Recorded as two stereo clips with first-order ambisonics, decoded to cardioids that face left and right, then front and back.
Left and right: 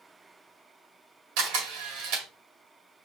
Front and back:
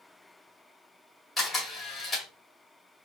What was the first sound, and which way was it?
A camera shutter, 85° right.